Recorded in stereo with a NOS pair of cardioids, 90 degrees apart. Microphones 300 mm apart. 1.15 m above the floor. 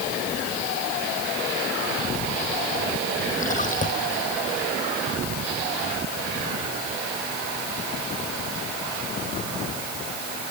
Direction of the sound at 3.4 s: 25° left.